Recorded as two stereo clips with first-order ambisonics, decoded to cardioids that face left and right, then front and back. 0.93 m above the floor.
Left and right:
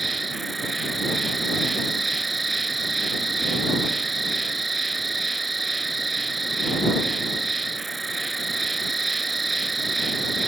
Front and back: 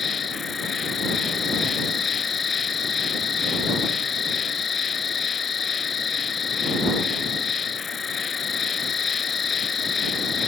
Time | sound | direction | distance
0.0 | an insect | 30° right | ?